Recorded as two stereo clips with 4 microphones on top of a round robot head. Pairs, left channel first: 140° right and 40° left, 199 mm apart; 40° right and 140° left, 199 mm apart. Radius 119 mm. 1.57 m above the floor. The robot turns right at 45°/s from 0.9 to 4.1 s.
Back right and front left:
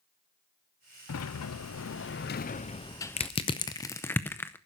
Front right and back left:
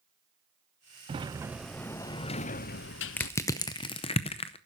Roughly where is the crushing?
Behind right.